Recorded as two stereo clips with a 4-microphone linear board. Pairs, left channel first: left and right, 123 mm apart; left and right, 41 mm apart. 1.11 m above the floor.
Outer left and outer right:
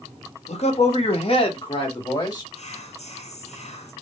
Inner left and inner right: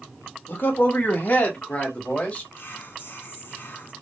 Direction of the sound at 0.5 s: 60° left (ahead or behind).